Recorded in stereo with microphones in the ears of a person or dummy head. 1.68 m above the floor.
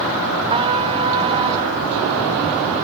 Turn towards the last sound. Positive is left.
turn(degrees=-25)  # may be behind; listen again after turning